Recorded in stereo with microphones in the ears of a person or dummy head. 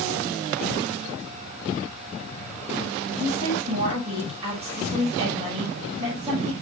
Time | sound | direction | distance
3.2 | a woman speaking | 35° right (ahead or behind) | 6 m